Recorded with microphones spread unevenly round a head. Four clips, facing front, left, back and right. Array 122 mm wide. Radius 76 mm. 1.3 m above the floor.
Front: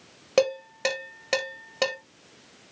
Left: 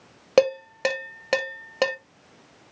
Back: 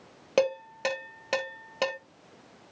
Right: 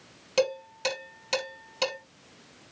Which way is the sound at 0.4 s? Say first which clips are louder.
Left 7 dB, front 2 dB; 75° left.